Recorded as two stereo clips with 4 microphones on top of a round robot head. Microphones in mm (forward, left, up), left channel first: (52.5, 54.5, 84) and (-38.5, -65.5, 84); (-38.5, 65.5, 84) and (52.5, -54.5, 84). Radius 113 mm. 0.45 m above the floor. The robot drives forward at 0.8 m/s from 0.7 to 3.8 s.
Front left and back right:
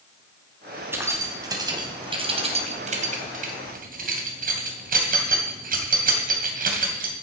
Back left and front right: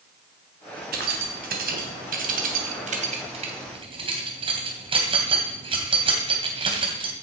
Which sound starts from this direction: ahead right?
Keys jangling, at 0.9 s.